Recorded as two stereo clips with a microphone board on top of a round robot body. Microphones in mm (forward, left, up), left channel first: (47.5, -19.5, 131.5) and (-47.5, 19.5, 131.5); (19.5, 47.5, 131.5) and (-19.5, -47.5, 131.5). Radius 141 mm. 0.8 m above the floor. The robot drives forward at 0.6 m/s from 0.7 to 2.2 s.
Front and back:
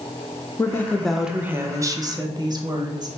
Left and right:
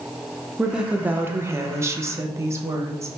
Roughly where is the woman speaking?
Ahead right.